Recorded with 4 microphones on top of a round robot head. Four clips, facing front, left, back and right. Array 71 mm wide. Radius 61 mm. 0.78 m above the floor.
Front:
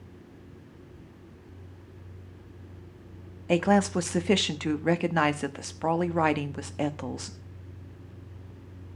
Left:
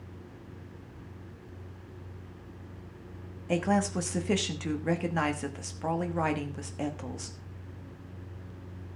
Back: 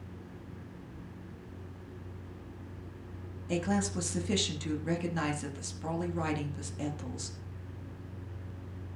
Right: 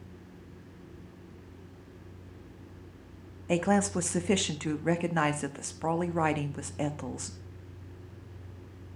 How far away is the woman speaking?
About 1.2 m.